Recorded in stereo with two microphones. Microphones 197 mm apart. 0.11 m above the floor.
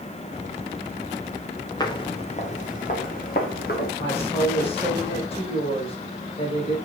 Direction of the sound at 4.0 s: 30° left (ahead or behind).